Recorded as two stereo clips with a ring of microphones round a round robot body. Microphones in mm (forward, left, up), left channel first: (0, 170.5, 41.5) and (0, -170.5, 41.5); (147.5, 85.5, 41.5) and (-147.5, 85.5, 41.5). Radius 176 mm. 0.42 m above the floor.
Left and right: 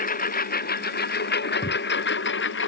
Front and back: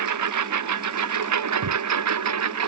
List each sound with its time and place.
0.0 s a lawn mower: 155° left; by 2.7 s 150° left
1.6 s footsteps: 165° left